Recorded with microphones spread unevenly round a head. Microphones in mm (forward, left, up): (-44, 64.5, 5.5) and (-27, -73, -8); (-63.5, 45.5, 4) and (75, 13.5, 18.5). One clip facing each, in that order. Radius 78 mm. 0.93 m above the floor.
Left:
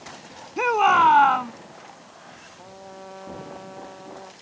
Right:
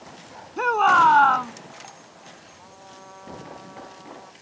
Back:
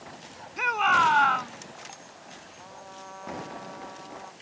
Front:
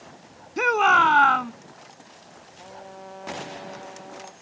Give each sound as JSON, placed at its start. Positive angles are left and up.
{"t": 0.6, "sound": "a shout", "azimuth_deg": 15}
{"t": 2.6, "sound": "a trumpet", "azimuth_deg": 40}